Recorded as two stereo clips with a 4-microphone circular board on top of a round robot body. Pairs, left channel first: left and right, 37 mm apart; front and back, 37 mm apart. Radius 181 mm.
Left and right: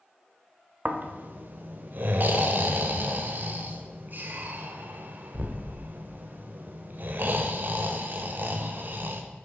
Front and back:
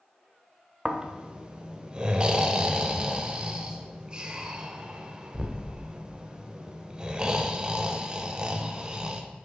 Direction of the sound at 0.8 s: 115° right.